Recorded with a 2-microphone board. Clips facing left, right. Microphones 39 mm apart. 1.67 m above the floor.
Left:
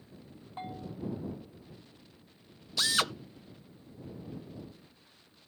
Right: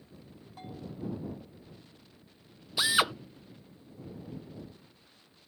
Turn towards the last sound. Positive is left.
turn(degrees=-20)  # may be behind; listen again after turning